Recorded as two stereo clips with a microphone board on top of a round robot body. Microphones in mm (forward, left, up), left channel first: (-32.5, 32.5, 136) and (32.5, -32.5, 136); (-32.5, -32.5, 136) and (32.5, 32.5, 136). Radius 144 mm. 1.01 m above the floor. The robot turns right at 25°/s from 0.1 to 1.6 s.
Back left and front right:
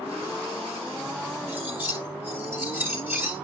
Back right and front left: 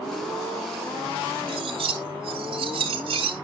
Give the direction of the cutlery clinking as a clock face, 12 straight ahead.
11 o'clock.